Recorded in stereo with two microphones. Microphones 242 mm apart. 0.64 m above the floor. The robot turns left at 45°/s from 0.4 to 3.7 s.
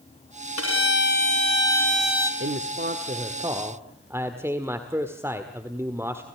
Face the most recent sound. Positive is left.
turn(degrees=-170)